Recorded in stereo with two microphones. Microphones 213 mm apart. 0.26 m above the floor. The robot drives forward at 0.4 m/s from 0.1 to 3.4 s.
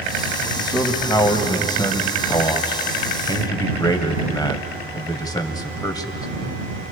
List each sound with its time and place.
0.6 s a man speaking: 20° left (ahead or behind), 1.7 m